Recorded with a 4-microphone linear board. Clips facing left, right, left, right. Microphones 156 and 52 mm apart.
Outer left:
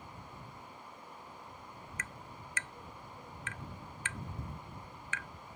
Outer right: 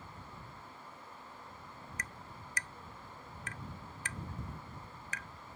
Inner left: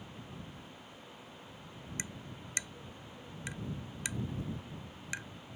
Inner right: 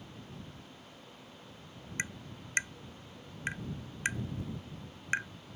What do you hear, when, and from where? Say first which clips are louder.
2.0 s tapping: outer left 1 dB, inner right 8 dB; 40° right (ahead or behind)